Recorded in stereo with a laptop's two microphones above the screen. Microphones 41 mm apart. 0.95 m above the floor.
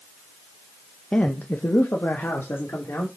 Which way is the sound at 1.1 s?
20° left (ahead or behind).